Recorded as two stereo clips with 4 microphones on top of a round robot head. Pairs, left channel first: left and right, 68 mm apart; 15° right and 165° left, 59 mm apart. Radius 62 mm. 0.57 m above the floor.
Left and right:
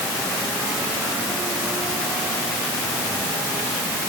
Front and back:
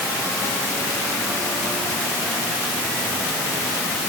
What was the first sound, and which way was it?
Only background noise.